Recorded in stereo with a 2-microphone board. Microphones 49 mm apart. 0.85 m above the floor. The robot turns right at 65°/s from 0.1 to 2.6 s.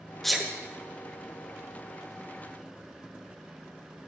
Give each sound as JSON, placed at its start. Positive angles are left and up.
{"t": 0.2, "sound": "a sneeze", "side_deg": 5, "distance_m": 0.9}